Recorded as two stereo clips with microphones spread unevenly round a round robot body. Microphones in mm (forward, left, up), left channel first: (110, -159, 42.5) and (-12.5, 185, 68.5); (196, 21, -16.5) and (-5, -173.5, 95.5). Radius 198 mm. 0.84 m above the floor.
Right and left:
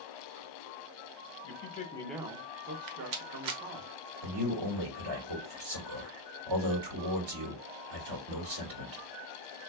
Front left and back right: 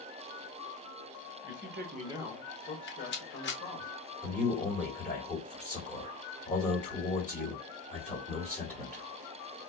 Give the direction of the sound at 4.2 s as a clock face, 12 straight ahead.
8 o'clock.